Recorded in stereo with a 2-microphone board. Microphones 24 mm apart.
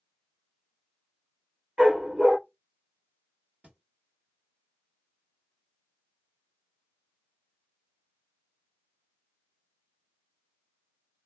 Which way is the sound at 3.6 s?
65° right (ahead or behind).